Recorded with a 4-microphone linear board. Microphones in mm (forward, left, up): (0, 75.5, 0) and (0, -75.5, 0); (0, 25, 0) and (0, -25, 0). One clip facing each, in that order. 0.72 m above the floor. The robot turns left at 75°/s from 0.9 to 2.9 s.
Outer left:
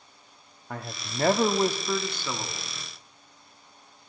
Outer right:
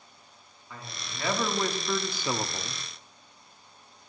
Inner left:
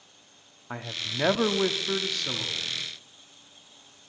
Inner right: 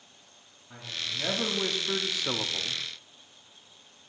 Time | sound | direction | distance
0.7 | a man speaking | 85° left | 1.0 m